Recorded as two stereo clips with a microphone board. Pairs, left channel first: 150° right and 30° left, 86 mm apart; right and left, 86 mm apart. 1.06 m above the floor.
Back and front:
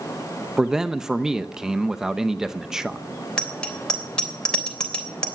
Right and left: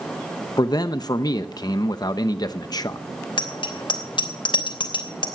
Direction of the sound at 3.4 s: 70° right.